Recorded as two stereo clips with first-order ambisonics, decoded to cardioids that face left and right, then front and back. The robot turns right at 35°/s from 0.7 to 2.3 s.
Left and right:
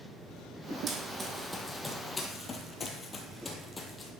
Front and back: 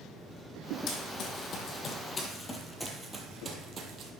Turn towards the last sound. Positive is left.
turn(degrees=160)